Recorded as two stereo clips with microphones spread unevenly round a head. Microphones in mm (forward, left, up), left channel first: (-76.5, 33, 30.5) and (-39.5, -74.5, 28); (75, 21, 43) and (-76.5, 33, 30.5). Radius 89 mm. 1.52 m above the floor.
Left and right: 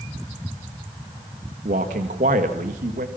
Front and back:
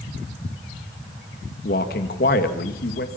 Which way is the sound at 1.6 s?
40° right.